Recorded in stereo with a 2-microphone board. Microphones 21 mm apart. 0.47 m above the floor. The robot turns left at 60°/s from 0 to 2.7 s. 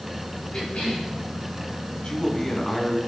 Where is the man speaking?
50° left, 3.5 m; by 3.0 s 10° left, 3.5 m.